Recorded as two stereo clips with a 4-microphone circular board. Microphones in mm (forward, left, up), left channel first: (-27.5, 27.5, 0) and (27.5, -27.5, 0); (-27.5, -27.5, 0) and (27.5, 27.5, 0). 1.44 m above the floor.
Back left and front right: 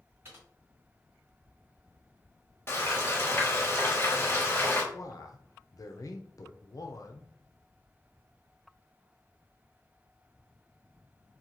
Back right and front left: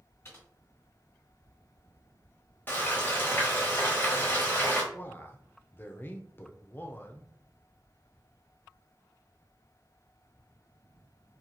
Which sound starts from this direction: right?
Typing on a keyboard, at 0.2 s.